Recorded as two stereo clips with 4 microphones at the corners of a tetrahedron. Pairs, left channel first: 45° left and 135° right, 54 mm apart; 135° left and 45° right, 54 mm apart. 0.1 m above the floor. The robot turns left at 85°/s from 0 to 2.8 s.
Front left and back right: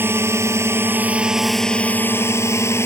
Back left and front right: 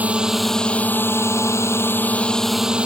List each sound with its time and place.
0.0 s a drone: 100° right; by 2.9 s 25° left